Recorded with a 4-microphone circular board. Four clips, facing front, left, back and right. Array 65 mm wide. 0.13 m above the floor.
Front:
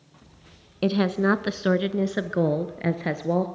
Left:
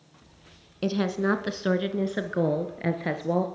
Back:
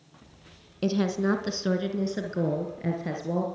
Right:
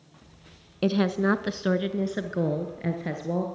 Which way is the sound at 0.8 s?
25° right.